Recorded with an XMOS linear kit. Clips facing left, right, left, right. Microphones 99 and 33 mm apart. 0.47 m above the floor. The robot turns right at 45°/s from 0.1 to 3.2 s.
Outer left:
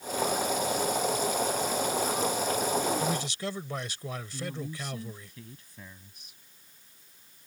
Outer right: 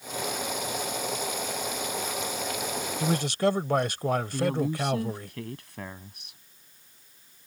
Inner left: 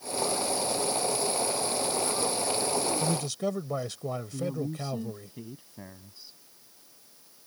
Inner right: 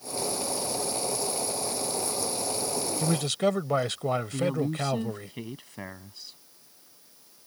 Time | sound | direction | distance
3.0 | a man speaking | 55° right (ahead or behind) | ?
4.3 | a woman speaking | 75° right (ahead or behind) | ?